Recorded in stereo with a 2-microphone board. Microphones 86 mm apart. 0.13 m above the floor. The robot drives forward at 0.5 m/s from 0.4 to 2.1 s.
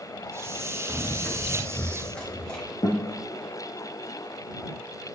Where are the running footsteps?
25° left (ahead or behind), 2.5 m; by 2.7 s 10° left (ahead or behind), 4.5 m.